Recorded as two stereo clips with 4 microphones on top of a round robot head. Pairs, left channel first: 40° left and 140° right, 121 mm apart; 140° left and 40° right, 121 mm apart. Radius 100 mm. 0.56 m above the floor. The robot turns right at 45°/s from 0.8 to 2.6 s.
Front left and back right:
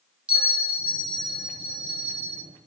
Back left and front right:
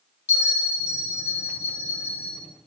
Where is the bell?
140° left, 2 m; by 2.4 s 145° right, 2 m.